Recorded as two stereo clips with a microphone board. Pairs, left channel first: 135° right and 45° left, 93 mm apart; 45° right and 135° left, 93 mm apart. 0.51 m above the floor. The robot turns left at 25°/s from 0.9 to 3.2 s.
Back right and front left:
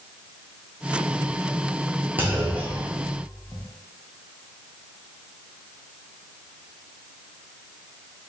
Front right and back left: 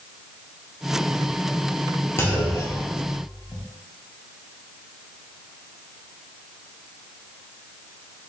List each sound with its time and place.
2.2 s a clunk: 5° right, 0.6 m; by 3.6 s 30° right, 0.6 m